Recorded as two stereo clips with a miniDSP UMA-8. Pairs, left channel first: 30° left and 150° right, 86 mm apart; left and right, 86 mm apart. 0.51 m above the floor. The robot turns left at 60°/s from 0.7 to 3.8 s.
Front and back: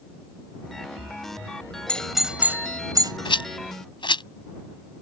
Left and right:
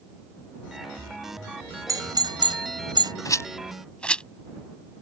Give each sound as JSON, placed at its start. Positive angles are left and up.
{"t": 1.9, "sound": "a doorbell", "azimuth_deg": -45}
{"t": 3.2, "sound": "a rattle", "azimuth_deg": 45}